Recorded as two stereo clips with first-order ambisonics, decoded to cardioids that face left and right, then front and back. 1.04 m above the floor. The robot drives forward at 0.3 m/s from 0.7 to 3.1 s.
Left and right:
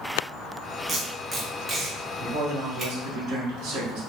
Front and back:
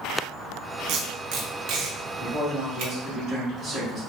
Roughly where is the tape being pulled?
Behind.